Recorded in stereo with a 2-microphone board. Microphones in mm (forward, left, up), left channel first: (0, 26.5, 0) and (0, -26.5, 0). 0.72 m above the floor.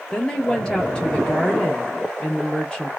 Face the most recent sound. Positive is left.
turn(degrees=15)  # may be behind; listen again after turning